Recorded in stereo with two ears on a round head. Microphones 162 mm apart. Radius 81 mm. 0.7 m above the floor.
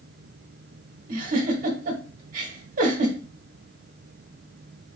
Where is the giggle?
50° right (ahead or behind), 1.1 m.